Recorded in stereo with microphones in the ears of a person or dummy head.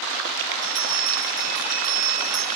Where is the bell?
40° right (ahead or behind), 5.5 m.